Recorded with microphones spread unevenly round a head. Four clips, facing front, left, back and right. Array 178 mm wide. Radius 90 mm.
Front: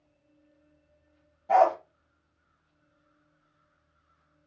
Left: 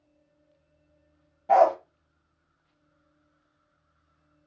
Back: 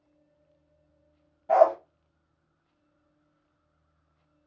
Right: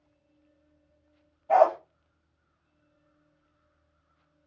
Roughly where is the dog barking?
Left.